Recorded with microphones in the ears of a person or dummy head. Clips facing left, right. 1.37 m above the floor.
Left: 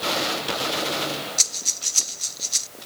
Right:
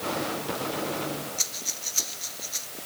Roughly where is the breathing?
Left.